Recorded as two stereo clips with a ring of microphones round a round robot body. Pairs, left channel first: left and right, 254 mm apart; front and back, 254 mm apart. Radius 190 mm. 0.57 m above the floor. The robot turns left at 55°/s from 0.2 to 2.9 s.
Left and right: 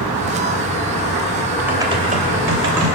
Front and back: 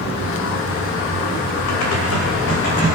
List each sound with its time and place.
1.7 s typing on a keyboard: 5° right, 2.5 m; by 2.9 s 75° right, 2.5 m